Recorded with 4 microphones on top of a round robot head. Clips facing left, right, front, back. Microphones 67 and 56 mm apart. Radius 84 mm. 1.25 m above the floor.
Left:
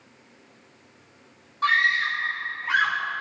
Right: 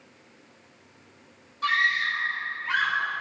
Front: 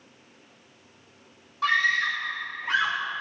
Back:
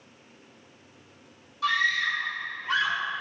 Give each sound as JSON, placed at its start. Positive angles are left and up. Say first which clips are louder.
{"t": 1.6, "sound": "a scream", "louder": "left 3 dB, front 2 dB", "azimuth_deg": 35, "distance_m": 3.5}